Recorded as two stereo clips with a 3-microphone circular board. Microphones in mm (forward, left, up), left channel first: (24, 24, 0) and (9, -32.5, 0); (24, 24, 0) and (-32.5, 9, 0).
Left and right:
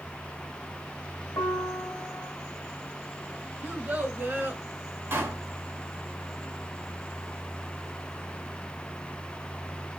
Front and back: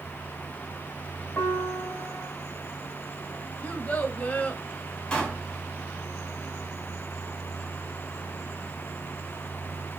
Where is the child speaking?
50° right, 1.8 m.